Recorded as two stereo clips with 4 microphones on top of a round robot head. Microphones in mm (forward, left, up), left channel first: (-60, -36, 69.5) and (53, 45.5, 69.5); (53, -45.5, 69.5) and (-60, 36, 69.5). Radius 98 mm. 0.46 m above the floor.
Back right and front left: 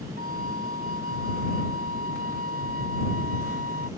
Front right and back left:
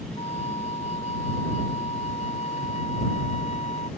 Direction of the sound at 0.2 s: 10° left.